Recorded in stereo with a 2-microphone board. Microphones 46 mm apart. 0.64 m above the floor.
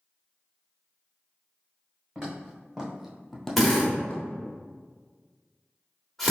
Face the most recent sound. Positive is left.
turn(degrees=5)  # may be behind; listen again after turning